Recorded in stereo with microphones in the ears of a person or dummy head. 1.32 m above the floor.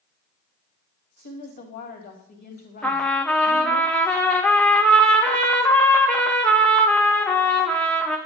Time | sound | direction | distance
1.2 | a woman speaking | 45° left (ahead or behind) | 1.5 m
2.8 | a trumpet | 5° left (ahead or behind) | 0.8 m